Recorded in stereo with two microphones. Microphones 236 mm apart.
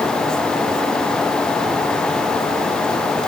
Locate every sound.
Only background noise.